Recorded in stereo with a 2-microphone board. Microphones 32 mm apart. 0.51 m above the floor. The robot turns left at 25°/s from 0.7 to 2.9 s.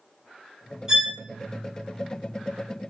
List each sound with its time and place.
0.9 s a violin: 15° right (ahead or behind), 1.3 m; by 1.1 s 10° right (ahead or behind), 1.3 m